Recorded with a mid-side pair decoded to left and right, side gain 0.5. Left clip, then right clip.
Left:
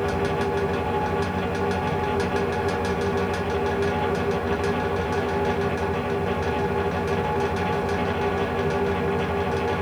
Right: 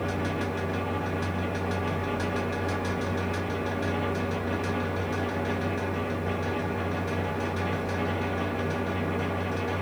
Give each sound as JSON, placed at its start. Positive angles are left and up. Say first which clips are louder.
{"t": 0.0, "sound": "a fan", "louder": "left 6 dB", "azimuth_deg": 50, "distance_m": 0.8}